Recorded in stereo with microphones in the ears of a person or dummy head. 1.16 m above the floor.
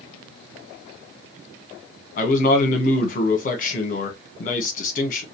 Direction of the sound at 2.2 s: 40° left (ahead or behind).